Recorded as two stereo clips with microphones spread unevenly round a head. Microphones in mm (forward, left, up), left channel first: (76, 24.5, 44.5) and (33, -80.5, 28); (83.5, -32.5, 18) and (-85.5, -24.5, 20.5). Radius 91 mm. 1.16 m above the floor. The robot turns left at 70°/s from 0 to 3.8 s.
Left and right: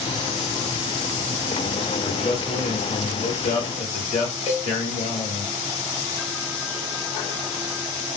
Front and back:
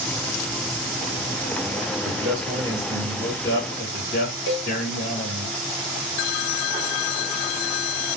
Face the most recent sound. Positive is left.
turn(degrees=35)